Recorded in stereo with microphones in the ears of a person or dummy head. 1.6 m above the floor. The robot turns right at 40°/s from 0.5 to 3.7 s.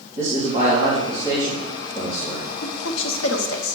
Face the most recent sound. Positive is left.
turn(degrees=75)  # may be behind; listen again after turning